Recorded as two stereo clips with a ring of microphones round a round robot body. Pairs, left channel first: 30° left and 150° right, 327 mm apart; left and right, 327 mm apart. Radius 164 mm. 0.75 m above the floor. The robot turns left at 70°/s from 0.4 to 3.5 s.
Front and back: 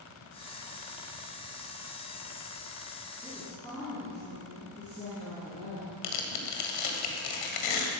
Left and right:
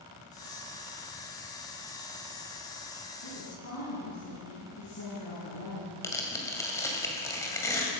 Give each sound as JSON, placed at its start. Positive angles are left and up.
{"t": 3.2, "sound": "a woman speaking", "azimuth_deg": 125, "distance_m": 6.5}
{"t": 6.0, "sound": "tearing paper", "azimuth_deg": 10, "distance_m": 2.0}